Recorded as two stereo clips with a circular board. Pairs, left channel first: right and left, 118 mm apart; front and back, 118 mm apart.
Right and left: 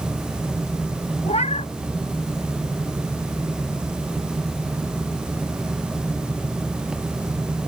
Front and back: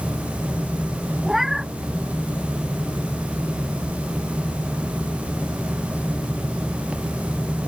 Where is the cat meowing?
95° right.